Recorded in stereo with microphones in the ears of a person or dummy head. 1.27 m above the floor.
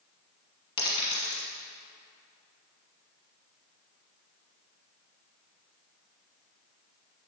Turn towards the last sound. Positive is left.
turn(degrees=30)  # may be behind; listen again after turning